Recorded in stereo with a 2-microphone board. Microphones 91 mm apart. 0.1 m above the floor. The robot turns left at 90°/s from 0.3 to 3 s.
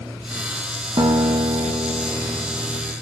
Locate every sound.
1.0 s a guitar: 60° right, 1.8 m; by 2.9 s 120° left, 1.8 m